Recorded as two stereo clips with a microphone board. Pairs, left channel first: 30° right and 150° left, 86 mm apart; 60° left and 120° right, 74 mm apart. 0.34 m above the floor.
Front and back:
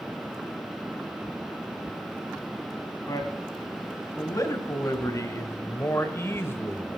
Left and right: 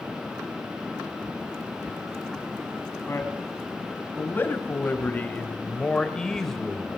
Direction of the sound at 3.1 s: 10° left.